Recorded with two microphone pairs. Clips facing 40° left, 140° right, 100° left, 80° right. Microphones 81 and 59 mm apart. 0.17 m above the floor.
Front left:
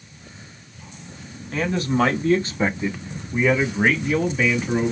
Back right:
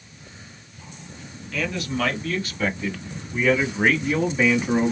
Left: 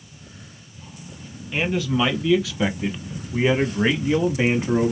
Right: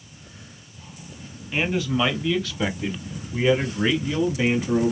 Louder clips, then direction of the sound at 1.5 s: Front left 5 dB, left 1 dB; 10° left.